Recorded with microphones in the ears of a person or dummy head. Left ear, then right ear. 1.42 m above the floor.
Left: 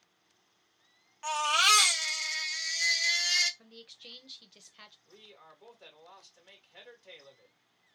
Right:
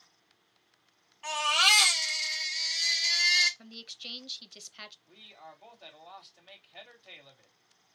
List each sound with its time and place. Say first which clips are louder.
1.2 s a baby crying: right 1 dB; 50° left (ahead or behind), 1.4 m
3.6 s a woman speaking: right 7 dB; 20° right (ahead or behind), 0.6 m
5.0 s a man speaking: right 4 dB; 80° left, 2.5 m